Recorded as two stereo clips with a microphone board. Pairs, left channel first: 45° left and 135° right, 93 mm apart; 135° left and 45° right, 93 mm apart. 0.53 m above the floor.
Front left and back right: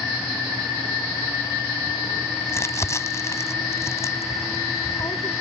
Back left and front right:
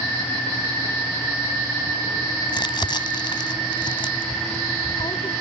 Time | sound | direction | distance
2.5 | crumpling | 105° left | ?